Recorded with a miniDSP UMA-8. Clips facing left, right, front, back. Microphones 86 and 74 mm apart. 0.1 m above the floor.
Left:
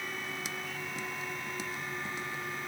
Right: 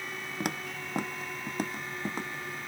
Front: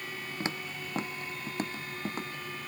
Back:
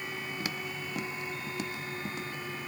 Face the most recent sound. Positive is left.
turn(degrees=-45)